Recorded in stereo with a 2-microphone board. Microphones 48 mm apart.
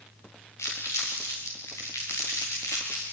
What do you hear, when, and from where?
0.6 s crumpling: 85° left, 6 m